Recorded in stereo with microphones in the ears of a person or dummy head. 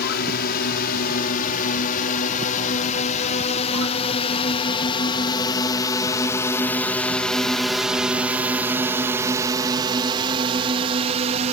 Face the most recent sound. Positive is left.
turn(degrees=-35)  # may be behind; listen again after turning